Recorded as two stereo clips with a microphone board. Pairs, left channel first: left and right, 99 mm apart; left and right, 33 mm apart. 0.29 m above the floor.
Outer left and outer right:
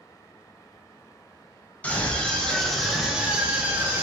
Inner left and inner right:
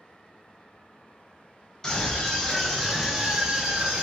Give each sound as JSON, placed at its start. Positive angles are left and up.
{"t": 1.8, "sound": "a scream", "side_deg": 15, "distance_m": 1.2}